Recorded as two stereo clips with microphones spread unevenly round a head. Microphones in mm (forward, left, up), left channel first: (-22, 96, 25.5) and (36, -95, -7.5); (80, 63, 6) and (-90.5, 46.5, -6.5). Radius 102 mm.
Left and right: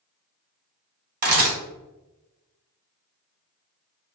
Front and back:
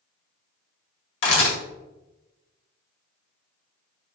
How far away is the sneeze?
No sneeze in this recording.